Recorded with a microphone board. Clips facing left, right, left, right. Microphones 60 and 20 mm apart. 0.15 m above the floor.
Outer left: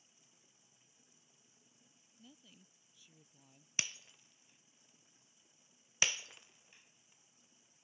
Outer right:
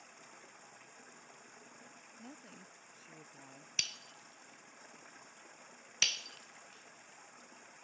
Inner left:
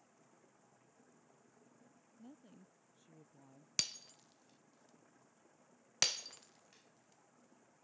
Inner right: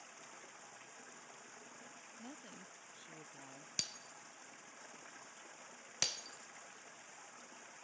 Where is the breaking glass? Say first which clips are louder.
Outer left 1 dB, inner left 3 dB; 15° left (ahead or behind).